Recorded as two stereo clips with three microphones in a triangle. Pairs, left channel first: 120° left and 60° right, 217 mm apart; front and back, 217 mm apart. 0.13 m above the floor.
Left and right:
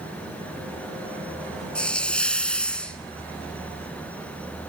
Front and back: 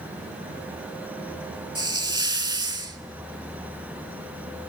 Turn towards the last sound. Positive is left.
turn(degrees=-165)